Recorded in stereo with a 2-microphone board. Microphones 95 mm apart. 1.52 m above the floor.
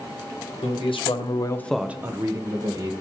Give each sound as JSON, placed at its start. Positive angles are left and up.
{"t": 0.6, "sound": "a man speaking", "side_deg": 80, "distance_m": 1.2}